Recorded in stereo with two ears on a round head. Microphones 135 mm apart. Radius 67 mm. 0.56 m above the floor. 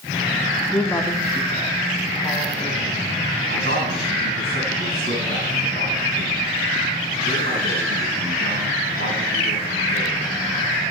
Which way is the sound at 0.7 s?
10° left (ahead or behind).